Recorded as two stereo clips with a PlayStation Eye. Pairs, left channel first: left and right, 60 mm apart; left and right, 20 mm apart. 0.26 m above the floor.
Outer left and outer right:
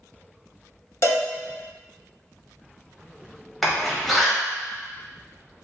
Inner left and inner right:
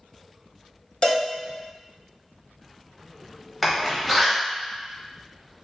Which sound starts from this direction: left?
A cowbell, at 1.0 s.